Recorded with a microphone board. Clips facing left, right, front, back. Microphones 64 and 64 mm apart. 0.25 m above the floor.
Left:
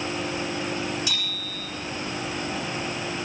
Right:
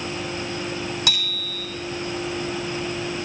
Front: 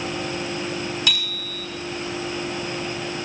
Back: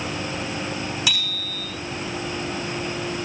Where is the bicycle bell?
95° right, 6.5 m.